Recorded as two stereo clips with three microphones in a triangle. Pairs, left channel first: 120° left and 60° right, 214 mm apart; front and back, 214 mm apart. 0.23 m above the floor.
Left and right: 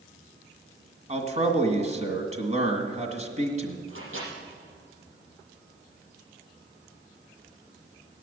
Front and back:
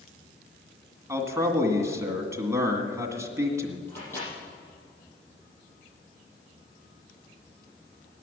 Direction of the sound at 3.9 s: 80° right.